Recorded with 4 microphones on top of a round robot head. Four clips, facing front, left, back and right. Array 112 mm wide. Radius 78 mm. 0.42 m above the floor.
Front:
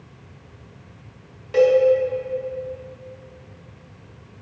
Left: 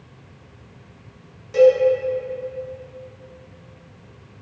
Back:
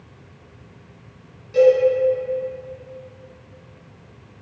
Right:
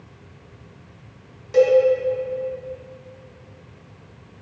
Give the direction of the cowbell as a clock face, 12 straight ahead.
1 o'clock.